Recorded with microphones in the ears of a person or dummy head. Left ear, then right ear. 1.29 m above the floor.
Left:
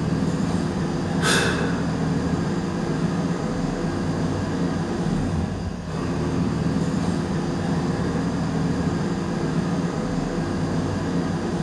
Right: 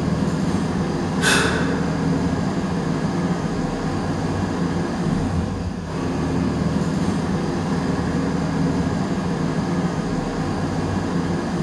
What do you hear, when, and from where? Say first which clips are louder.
0.0 s an engine running: right 2 dB; centre (ahead or behind), 1.4 m
1.2 s a gasp: right 3 dB; 5° right (ahead or behind), 1.9 m